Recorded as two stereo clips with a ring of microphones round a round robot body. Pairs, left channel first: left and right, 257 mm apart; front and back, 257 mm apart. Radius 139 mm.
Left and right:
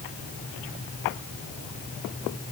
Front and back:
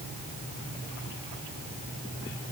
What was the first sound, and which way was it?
Only background noise.